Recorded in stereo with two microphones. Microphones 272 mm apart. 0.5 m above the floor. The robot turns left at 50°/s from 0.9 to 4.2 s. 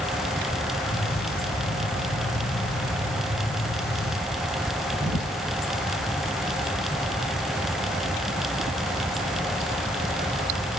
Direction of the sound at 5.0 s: 80° right.